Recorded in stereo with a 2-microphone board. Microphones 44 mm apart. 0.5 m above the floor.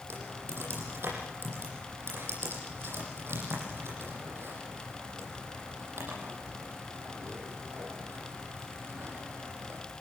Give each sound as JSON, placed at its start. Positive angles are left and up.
{"t": 0.1, "sound": "typing on a keyboard", "side_deg": -65, "distance_m": 10.0}